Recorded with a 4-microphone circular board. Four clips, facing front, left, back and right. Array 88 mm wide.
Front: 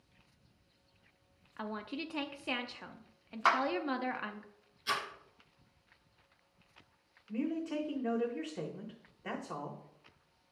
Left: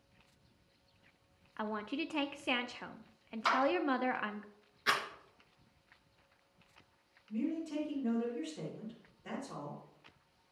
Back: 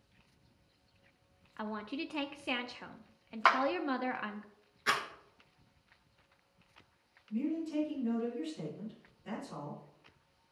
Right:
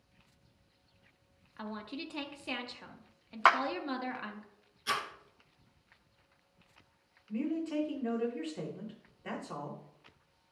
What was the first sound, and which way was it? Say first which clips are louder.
A woman speaking: left 4 dB, back 1 dB; 100° left.